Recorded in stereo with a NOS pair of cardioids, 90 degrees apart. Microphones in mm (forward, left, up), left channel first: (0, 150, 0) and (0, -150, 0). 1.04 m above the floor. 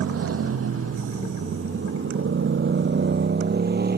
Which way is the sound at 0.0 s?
50° right.